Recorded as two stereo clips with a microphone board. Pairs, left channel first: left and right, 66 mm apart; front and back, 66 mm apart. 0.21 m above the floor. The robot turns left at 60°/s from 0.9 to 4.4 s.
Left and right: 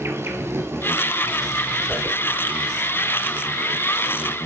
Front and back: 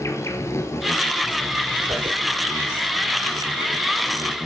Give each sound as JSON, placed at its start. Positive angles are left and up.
{"t": 0.0, "sound": "an insect", "azimuth_deg": -40, "distance_m": 3.0}
{"t": 1.9, "sound": "a whoosh", "azimuth_deg": 165, "distance_m": 1.6}